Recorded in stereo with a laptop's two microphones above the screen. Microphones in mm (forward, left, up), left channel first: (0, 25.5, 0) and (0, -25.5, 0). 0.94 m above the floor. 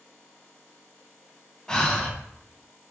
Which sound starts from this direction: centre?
Breathing, at 1.7 s.